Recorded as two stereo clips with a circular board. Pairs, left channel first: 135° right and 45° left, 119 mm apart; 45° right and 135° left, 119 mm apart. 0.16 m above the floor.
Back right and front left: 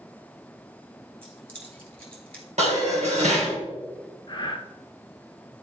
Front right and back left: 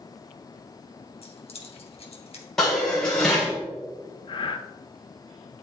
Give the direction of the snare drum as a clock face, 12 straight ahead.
No snare drum in this recording.